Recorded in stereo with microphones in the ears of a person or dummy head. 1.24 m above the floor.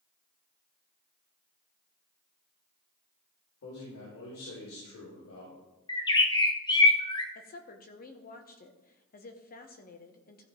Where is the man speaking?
90° left, 3.5 m; by 5.6 s 80° left, 4.5 m.